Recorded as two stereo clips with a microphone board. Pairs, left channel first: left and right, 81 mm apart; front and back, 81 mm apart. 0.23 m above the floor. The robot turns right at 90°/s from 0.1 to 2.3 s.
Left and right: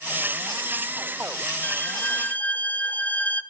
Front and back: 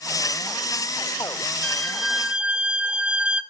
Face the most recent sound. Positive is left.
turn(degrees=125)